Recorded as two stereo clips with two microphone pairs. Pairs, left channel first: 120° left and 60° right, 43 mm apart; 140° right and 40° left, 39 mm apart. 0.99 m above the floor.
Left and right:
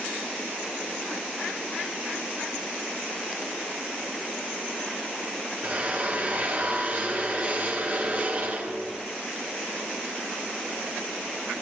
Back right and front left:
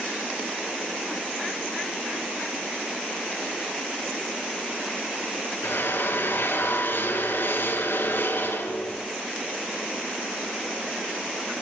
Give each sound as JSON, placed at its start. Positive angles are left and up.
{"t": 5.6, "sound": "a drill", "azimuth_deg": -115, "distance_m": 6.5}